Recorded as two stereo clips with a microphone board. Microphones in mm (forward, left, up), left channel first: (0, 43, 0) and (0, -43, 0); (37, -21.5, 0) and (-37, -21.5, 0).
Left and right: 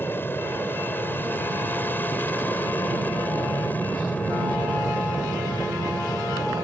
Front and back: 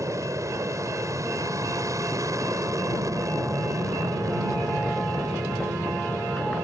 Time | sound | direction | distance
0.0 | an aircraft | 150° left | ?